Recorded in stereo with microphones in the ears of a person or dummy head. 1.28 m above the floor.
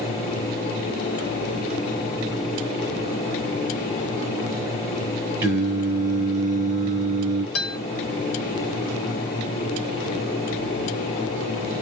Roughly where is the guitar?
Left.